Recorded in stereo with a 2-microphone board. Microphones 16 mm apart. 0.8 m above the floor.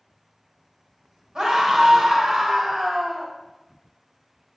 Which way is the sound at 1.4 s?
60° right (ahead or behind).